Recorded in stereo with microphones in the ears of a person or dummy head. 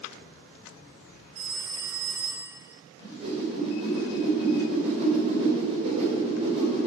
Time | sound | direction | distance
1.4 | a phone ringing | 45° right (ahead or behind) | 3 m
3.0 | a whoosh | 35° right (ahead or behind) | 3.5 m